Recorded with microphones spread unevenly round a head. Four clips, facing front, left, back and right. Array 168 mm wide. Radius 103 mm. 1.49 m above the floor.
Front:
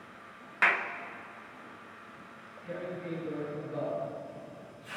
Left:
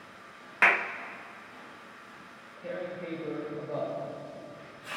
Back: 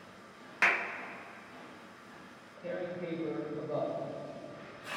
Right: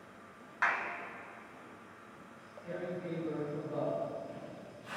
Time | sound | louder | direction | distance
0.6 | a clap | left 7 dB, front 2 dB | 95° left | 0.7 m
2.6 | tearing paper | left 3 dB, back 1 dB | 145° left | 5.5 m